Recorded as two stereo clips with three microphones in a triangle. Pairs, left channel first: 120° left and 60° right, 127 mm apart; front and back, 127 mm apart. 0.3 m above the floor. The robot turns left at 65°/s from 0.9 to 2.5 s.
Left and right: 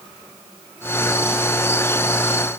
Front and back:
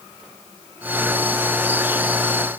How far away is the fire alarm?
I don't hear a fire alarm.